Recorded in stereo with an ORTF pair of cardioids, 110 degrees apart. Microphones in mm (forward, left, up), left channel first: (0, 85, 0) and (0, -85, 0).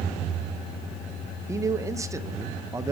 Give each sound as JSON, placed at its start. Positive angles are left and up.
{"t": 1.5, "sound": "a man speaking", "azimuth_deg": -20, "distance_m": 0.6}